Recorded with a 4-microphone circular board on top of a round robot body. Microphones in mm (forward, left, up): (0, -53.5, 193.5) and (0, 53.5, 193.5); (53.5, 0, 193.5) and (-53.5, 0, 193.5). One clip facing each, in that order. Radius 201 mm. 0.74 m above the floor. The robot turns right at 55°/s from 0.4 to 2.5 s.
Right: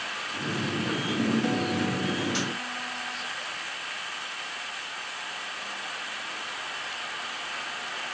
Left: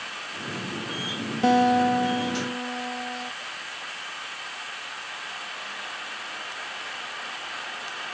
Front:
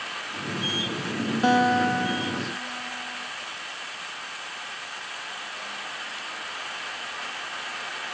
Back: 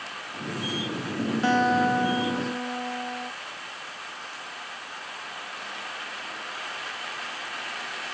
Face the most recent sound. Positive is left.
turn(degrees=135)